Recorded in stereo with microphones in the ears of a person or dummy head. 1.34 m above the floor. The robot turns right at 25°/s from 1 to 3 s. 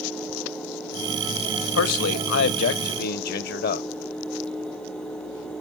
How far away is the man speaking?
About 0.8 m.